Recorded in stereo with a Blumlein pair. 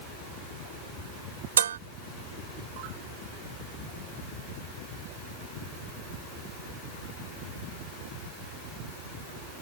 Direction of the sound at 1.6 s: 65° right.